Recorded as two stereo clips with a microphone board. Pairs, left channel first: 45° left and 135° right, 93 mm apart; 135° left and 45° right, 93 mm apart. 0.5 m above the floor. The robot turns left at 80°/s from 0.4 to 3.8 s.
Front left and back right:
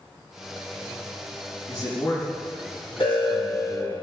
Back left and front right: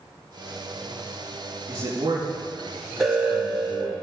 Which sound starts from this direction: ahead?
A man speaking, at 1.7 s.